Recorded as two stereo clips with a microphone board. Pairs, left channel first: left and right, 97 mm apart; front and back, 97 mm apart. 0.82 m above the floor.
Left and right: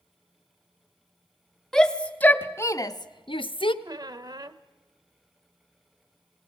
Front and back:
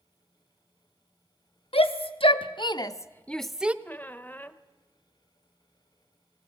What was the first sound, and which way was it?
A shout, 5° left.